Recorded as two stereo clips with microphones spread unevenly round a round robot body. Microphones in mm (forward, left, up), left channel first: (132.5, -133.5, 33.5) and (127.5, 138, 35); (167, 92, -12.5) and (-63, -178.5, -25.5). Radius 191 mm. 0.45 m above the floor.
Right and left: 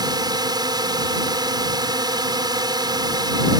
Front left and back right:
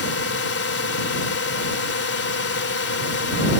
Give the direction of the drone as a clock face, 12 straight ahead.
11 o'clock.